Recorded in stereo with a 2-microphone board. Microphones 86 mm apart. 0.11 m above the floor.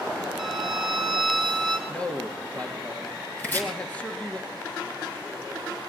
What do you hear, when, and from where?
0.4 s a violin: centre (ahead or behind), 2.5 m
1.9 s a man speaking: 15° left (ahead or behind), 2.5 m
3.4 s chopping: 20° left (ahead or behind), 3 m